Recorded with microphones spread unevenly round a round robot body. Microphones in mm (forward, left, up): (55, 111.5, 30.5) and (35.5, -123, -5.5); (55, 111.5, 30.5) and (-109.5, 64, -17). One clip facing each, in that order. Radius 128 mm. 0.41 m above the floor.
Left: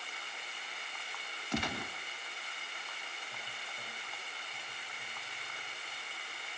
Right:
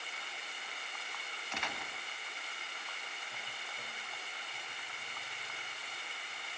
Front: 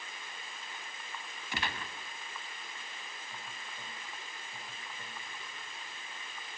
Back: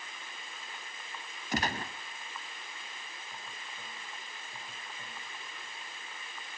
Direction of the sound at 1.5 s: 145° left.